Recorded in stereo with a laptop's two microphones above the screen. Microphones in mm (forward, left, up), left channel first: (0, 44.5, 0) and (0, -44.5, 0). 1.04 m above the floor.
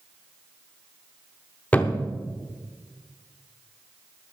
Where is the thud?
20° left (ahead or behind), 0.7 m.